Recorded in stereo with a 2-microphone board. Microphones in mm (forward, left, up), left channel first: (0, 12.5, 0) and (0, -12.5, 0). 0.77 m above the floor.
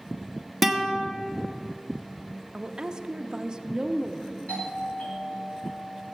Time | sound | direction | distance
0.6 | a guitar | centre (ahead or behind) | 1.1 m
2.5 | a woman speaking | 30° right (ahead or behind) | 0.7 m
4.5 | a doorbell | 70° left (ahead or behind) | 4 m